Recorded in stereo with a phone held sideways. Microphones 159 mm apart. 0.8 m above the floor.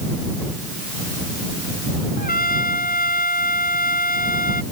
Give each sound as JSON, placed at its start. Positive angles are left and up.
{"t": 2.2, "sound": "a trumpet", "side_deg": 65}